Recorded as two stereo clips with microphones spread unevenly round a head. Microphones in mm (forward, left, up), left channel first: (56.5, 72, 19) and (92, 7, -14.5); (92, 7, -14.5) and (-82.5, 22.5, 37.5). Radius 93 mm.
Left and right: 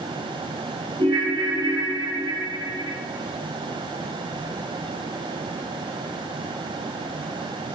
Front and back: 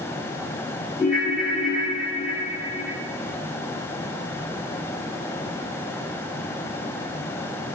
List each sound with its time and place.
1.0 s a ringtone: 100° right, 1.6 m